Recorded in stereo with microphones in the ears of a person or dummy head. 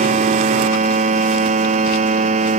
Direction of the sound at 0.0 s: 45° right (ahead or behind).